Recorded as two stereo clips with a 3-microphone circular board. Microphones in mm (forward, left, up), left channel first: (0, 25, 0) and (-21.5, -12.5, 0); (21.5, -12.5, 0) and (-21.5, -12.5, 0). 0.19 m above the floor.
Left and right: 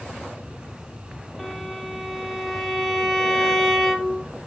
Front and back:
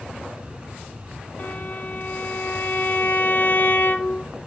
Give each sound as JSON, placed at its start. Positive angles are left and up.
{"t": 1.4, "sound": "a violin", "azimuth_deg": -25, "distance_m": 0.9}